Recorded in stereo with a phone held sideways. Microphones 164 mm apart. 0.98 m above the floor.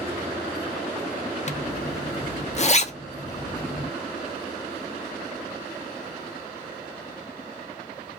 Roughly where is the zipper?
Left.